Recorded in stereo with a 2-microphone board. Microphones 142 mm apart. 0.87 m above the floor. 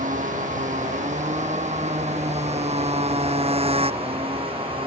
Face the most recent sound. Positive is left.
turn(degrees=-40)  # may be behind; listen again after turning